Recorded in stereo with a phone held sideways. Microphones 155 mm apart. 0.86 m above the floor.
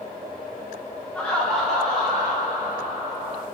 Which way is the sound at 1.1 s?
10° left (ahead or behind).